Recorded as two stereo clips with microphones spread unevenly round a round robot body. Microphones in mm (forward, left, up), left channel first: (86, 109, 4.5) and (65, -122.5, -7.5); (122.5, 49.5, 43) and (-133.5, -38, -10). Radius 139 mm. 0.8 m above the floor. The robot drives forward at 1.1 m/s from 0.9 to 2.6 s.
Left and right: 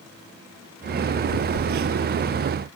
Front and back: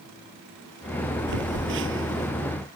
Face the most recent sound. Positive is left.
turn(degrees=-115)